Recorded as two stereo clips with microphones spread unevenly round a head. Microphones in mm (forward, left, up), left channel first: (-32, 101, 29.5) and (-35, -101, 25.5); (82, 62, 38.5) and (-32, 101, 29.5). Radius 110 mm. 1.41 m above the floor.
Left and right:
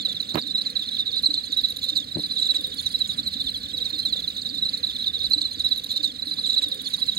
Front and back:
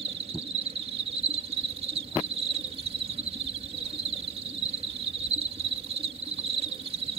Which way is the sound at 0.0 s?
135° right.